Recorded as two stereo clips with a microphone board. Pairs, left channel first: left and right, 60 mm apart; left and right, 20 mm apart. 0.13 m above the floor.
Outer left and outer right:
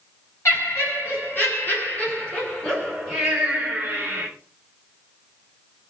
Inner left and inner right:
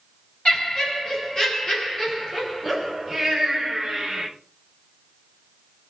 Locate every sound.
0.5 s laughter: 50° left (ahead or behind), 1.9 m; by 4.3 s 25° right (ahead or behind), 1.3 m